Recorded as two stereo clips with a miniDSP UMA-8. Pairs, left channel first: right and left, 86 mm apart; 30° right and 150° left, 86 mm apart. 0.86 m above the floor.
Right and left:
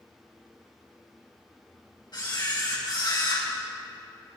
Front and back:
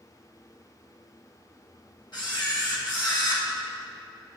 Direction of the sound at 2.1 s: 60° right.